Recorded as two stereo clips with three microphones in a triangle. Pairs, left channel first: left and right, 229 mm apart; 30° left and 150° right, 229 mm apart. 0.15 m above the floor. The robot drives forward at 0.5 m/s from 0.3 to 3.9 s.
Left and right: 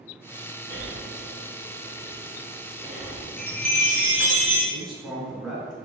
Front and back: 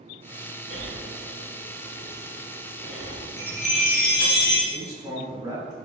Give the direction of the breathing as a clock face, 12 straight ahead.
4 o'clock.